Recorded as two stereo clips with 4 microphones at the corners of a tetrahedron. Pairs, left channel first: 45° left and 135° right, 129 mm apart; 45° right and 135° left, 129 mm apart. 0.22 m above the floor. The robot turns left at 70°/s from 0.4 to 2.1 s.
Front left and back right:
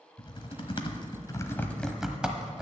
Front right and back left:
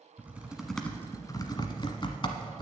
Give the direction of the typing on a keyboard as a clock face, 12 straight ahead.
10 o'clock.